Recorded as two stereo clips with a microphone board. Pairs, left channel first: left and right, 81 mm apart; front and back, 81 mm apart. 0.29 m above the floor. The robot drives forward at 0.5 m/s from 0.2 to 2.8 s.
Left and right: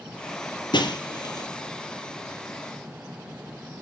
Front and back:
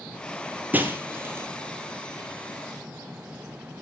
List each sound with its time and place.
0.7 s breaking glass: 110° left, 2 m; by 1.5 s 120° left, 2.5 m